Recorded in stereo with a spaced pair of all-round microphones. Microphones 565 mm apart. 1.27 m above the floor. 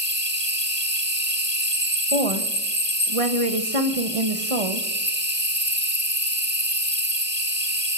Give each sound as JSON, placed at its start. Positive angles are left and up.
{"t": 0.0, "sound": "an insect", "side_deg": -20, "distance_m": 1.4}
{"t": 2.1, "sound": "a woman speaking", "side_deg": -70, "distance_m": 1.1}